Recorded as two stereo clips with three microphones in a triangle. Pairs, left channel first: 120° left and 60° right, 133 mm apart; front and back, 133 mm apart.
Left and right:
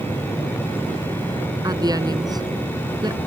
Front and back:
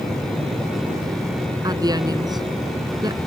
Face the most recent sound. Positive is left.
turn(degrees=-120)